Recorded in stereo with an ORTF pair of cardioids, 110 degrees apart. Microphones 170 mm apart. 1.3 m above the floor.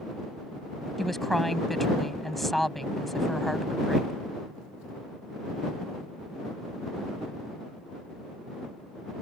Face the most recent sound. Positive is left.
turn(degrees=0)